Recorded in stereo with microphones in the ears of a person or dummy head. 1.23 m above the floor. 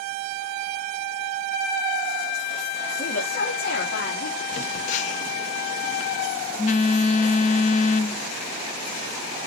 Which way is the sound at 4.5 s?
40° left (ahead or behind).